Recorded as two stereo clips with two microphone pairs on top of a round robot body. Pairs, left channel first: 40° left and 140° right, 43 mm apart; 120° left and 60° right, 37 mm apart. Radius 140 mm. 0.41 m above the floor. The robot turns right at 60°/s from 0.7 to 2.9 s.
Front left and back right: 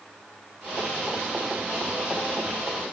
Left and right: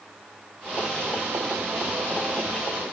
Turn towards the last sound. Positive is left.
No sound to turn to.